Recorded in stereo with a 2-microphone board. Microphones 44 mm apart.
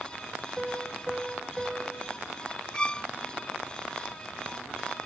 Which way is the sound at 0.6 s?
10° right (ahead or behind).